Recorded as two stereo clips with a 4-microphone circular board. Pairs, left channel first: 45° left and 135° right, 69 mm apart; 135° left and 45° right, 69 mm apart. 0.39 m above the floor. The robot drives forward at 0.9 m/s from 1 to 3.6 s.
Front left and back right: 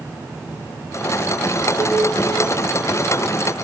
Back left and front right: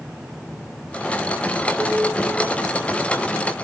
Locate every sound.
1.8 s dishes clattering: 135° right, 1.4 m; by 2.1 s 140° right, 1.6 m